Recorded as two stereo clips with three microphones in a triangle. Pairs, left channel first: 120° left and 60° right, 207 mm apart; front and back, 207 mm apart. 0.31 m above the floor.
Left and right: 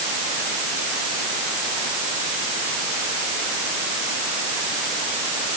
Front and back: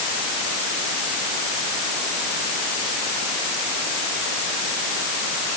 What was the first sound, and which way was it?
Only background noise.